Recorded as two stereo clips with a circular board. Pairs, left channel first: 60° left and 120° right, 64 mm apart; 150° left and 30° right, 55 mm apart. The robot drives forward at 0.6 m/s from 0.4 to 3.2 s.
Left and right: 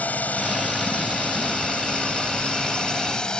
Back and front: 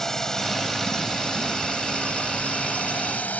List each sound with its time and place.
0.0 s a drone: 80° left; by 3.4 s 125° left